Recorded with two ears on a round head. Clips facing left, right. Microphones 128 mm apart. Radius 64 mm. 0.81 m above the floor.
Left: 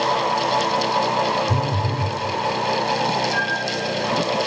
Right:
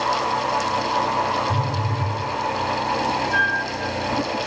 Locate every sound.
1.5 s a phone buzzing: 40° left (ahead or behind), 0.9 m
3.3 s a flute: 15° left (ahead or behind), 3.5 m